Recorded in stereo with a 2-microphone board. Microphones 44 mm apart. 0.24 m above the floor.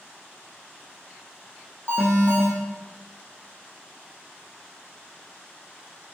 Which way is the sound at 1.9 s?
55° right (ahead or behind).